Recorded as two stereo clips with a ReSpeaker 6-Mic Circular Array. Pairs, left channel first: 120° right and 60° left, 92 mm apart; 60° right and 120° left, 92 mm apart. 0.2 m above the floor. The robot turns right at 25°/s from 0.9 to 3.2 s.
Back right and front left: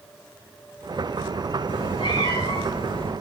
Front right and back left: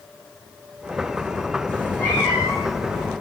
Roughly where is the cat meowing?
Behind right.